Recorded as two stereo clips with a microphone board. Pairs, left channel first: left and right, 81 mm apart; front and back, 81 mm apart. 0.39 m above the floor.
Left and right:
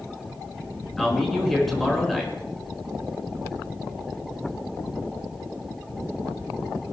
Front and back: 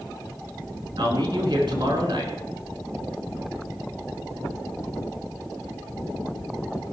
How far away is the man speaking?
About 5.5 m.